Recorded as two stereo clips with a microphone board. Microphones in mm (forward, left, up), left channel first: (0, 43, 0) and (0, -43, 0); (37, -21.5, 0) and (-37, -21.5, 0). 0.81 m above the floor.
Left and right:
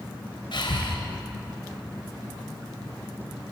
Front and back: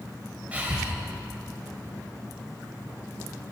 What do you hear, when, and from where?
0.5 s breathing: 110° left, 1.9 m